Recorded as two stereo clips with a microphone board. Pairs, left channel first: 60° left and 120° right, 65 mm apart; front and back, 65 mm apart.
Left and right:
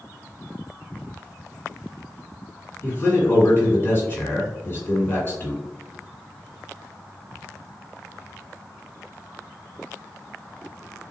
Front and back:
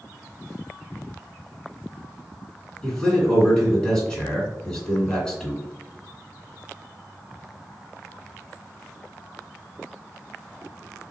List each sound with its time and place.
2.8 s a man speaking: 65° left, 1.8 m